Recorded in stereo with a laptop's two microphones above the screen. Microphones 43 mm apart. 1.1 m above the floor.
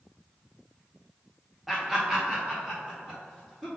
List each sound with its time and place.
1.7 s laughter: 5° right (ahead or behind), 0.6 m; by 3.7 s 15° right (ahead or behind), 1.8 m